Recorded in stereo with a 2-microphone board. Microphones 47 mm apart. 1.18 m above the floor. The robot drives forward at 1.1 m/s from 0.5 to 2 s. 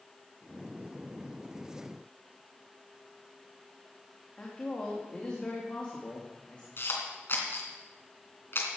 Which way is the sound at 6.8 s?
55° left (ahead or behind).